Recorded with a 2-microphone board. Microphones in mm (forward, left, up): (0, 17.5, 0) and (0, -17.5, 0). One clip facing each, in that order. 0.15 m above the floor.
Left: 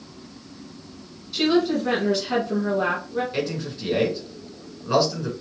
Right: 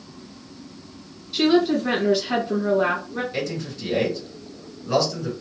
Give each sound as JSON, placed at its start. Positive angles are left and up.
{"t": 1.3, "sound": "a woman speaking", "side_deg": -10, "distance_m": 1.2}
{"t": 3.3, "sound": "a man speaking", "side_deg": 15, "distance_m": 2.0}